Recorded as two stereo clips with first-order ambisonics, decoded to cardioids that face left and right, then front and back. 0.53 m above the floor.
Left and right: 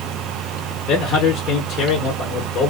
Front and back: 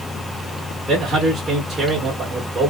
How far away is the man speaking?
About 1.0 m.